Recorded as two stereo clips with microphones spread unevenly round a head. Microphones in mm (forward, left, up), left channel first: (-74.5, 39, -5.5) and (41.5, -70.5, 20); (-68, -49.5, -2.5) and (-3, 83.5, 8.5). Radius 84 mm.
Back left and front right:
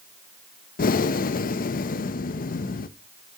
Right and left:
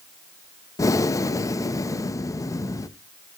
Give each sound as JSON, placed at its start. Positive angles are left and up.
{"t": 0.8, "sound": "breathing", "azimuth_deg": 175, "distance_m": 0.6}